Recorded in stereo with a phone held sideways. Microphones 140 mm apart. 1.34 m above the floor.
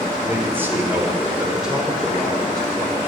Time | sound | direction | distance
0.2 | a man speaking | 20° right (ahead or behind) | 5 m